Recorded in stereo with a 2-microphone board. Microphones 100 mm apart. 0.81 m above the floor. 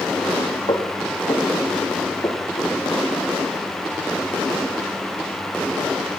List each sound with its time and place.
0.7 s footsteps: 50° left (ahead or behind), 4 m; by 2.7 s 25° left (ahead or behind), 5.5 m